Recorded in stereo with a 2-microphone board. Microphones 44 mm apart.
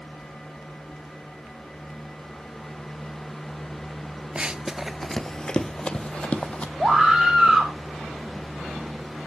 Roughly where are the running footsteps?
Right.